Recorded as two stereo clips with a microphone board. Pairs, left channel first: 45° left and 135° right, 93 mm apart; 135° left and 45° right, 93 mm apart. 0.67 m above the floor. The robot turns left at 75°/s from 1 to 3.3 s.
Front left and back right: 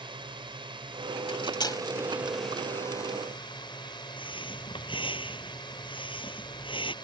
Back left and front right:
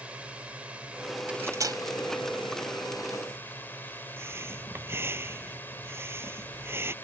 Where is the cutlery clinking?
35° left; by 1.8 s 10° right.